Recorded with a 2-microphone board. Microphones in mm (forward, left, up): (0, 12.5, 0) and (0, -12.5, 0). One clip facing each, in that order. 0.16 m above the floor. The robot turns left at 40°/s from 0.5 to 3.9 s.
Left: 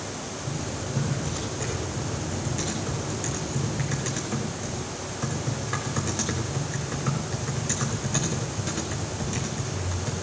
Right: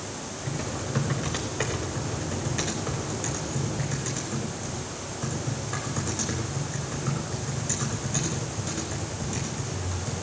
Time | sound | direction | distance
0.5 | typing on a keyboard | 75° right | 4.5 m